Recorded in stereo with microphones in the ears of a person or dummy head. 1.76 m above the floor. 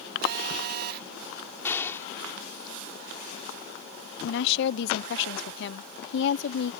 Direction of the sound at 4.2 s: 65° left (ahead or behind).